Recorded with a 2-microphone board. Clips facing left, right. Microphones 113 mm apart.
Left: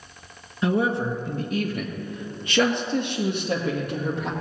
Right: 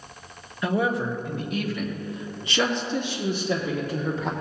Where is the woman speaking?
25° left (ahead or behind), 1.4 m; by 4.3 s 65° left (ahead or behind), 3 m.